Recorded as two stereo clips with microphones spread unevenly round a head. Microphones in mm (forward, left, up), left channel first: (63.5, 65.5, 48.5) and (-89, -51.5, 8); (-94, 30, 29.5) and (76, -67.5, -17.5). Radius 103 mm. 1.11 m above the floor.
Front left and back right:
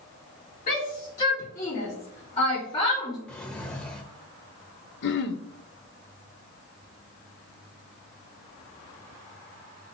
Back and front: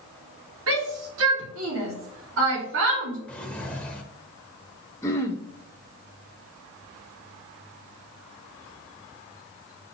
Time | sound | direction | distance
0.7 | a shout | 15° right | 4 m
3.3 | a drawer | 95° left | 0.9 m
5.0 | throat clearing | 70° left | 1.1 m